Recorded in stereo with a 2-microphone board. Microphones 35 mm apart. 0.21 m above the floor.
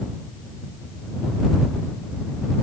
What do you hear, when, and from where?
Only background noise.